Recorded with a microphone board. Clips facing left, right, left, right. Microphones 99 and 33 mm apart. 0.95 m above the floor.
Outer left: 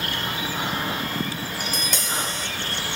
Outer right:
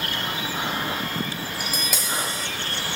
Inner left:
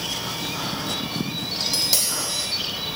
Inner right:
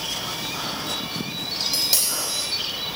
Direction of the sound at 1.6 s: 5° right (ahead or behind).